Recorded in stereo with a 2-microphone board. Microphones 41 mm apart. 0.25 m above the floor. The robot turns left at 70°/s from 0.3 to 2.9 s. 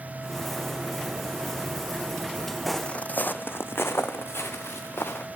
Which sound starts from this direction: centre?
Footsteps, at 2.7 s.